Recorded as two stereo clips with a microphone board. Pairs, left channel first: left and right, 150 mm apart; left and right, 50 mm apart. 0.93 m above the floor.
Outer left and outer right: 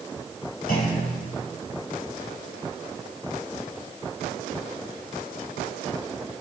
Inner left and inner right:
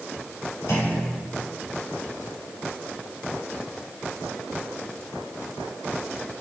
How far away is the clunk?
About 4.5 m.